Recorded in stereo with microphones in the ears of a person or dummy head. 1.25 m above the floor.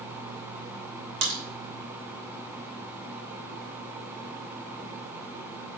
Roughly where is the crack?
Right.